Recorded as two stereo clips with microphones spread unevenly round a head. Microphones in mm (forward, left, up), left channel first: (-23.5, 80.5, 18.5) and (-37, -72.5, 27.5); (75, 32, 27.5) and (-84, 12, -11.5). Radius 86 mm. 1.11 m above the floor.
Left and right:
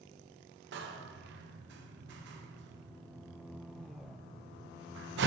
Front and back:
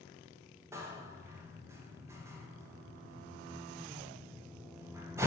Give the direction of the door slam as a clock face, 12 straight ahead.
3 o'clock.